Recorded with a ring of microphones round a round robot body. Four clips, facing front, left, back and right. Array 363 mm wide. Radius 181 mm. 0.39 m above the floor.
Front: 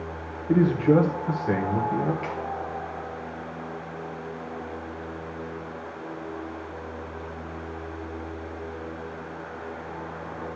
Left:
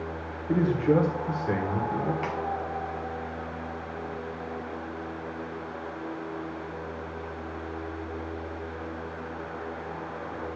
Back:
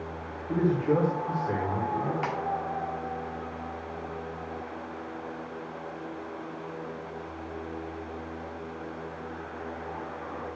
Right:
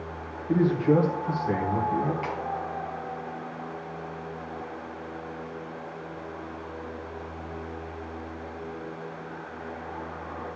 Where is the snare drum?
155° left, 1.6 m.